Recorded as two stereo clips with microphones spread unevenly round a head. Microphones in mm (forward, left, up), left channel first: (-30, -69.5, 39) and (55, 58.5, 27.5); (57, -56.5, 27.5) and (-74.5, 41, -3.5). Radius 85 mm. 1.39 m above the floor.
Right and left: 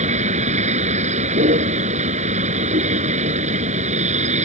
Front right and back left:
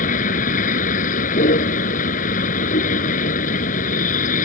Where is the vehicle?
10° left.